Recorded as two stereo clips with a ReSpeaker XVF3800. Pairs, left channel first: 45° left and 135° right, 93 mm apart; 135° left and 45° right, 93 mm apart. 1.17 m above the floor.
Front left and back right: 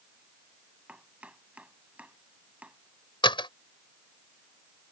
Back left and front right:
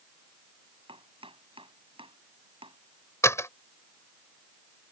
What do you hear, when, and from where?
0.9 s chopping: 60° right
3.2 s a door slam: 75° left